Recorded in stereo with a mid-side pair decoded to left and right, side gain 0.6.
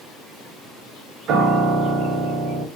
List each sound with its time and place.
1.3 s a piano: 55° right, 0.7 m